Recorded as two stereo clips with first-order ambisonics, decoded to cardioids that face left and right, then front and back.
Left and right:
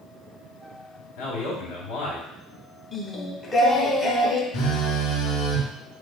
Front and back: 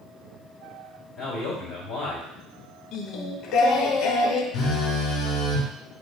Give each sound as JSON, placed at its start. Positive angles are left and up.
{"t": 1.2, "sound": "a man speaking", "azimuth_deg": 85, "distance_m": 2.0}
{"t": 2.9, "sound": "singing", "azimuth_deg": 20, "distance_m": 0.7}
{"t": 4.5, "sound": "a phone buzzing", "azimuth_deg": 55, "distance_m": 1.5}